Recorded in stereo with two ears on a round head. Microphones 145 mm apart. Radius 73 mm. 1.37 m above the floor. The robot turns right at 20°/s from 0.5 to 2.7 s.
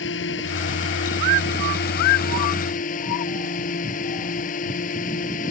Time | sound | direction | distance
0.0 | a drone | 80° left | ?